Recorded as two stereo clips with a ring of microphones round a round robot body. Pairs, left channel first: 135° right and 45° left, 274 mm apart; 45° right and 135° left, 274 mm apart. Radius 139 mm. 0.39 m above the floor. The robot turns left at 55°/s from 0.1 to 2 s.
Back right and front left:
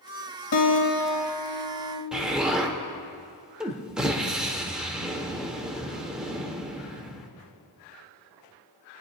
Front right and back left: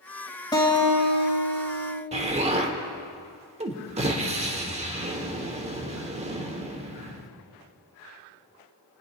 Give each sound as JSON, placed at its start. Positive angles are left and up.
{"t": 0.5, "sound": "a guitar", "azimuth_deg": -120, "distance_m": 2.0}
{"t": 2.1, "sound": "an explosion", "azimuth_deg": 130, "distance_m": 1.0}